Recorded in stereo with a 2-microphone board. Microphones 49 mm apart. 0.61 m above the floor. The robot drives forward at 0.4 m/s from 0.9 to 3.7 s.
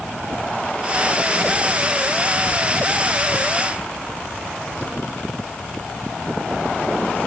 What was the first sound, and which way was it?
Only background noise.